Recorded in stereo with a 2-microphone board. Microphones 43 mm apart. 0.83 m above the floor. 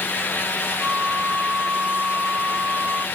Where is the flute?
40° right (ahead or behind).